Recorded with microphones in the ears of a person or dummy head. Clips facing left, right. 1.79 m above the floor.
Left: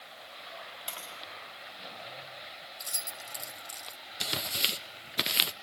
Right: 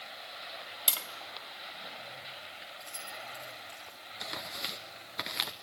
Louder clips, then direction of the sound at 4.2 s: Left 4 dB; 35° left (ahead or behind).